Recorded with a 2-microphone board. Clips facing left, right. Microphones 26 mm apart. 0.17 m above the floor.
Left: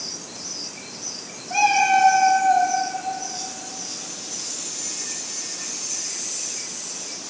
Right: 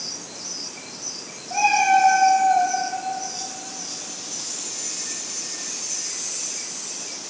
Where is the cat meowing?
60° left (ahead or behind), 2.5 m.